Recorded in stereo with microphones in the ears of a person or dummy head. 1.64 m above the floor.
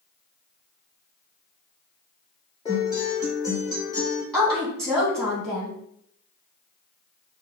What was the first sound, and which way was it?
A guitar, 20° left (ahead or behind).